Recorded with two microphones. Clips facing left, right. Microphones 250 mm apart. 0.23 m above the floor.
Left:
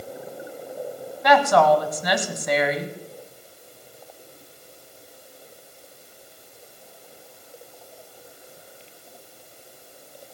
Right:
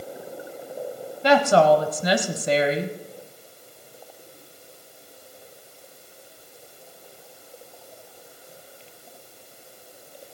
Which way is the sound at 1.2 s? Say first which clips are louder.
Right 1 dB; 30° right (ahead or behind).